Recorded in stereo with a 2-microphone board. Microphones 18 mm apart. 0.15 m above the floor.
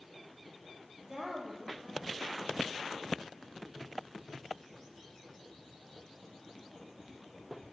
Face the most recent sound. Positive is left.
turn(degrees=-15)  # may be behind; listen again after turning